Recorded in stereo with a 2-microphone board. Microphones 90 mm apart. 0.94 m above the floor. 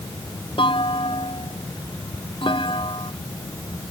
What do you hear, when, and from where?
0.6 s a clunk: 75° left (ahead or behind)